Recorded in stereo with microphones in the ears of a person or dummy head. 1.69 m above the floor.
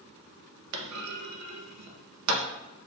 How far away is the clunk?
About 0.6 m.